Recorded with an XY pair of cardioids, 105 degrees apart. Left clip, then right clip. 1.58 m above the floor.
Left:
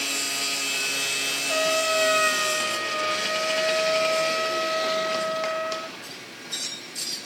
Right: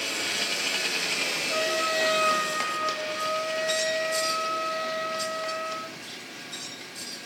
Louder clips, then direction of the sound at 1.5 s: Left 5 dB; 65° left.